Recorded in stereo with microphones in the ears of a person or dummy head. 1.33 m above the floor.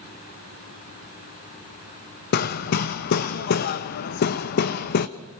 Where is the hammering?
55° left (ahead or behind), 0.8 m.